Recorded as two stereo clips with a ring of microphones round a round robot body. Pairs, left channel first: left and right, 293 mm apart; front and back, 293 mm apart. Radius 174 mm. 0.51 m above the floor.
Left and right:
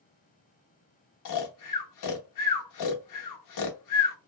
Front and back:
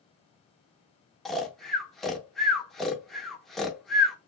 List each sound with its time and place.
1.2 s snoring: 90° left, 0.7 m